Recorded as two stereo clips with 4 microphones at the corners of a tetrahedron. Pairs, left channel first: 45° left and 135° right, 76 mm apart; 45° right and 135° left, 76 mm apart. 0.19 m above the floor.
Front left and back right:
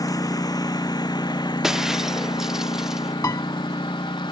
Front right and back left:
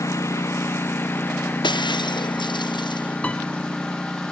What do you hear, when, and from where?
0.0 s a lawn mower: 5° left; by 4.3 s 35° left
1.6 s breaking glass: 50° right
3.2 s a piano: 25° left